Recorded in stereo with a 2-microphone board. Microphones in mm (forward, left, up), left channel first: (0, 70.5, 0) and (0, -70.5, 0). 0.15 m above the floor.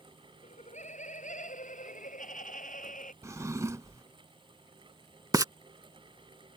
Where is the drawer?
20° right (ahead or behind).